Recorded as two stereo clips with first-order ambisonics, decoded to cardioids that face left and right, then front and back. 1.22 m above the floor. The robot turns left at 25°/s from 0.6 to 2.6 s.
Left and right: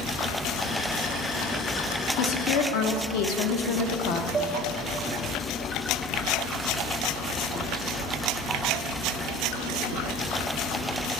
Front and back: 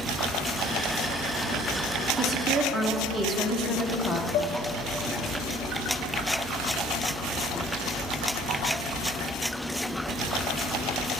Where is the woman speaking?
100° left, 1.0 m; by 4.2 s 90° left, 1.0 m.